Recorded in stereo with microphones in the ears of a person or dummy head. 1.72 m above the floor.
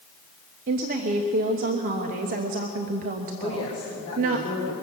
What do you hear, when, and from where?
0.7 s a woman speaking: 40° right (ahead or behind), 0.8 m
3.4 s a woman speaking: 30° left (ahead or behind), 2.5 m